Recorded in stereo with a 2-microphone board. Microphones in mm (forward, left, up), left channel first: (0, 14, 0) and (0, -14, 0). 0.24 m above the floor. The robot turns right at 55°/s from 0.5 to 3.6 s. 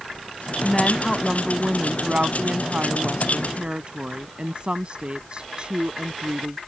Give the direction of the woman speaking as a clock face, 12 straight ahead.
7 o'clock.